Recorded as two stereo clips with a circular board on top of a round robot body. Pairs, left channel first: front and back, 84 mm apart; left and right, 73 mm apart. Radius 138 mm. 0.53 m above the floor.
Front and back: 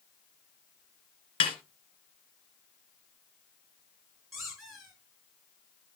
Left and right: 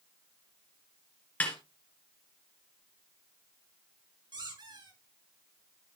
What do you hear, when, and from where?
1.4 s a snare drum: 20° left, 1.9 m
4.3 s a squeak: 90° right, 7.5 m